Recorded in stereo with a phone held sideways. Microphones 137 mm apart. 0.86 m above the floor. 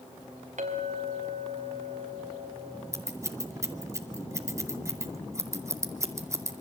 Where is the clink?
60° right (ahead or behind), 4 m.